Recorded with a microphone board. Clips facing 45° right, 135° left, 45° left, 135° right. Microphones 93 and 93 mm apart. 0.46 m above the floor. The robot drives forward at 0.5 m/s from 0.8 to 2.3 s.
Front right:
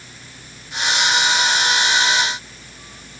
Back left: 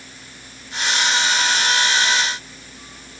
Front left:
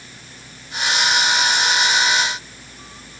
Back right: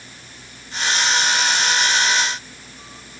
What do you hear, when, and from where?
Only background noise.